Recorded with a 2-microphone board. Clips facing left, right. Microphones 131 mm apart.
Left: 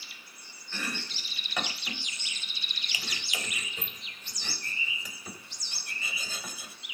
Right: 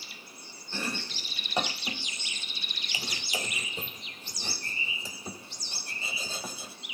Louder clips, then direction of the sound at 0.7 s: Right 2 dB; 30° right (ahead or behind).